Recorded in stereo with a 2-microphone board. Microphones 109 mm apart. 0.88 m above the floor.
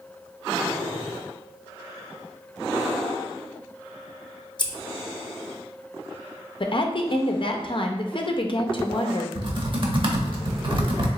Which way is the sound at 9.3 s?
50° right (ahead or behind).